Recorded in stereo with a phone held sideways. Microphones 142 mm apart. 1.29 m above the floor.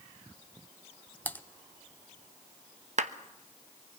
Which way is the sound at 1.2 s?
15° left (ahead or behind).